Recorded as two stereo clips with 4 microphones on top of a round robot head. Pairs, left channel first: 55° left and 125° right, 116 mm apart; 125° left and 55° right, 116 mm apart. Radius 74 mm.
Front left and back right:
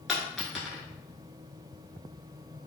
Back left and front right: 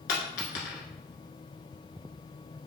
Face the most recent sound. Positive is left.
turn(degrees=145)